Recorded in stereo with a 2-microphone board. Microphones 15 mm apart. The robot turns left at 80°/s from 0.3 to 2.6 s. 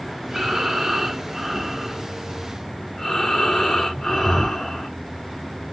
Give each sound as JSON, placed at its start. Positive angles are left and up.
{"t": 0.3, "sound": "breathing", "azimuth_deg": -45, "distance_m": 2.5}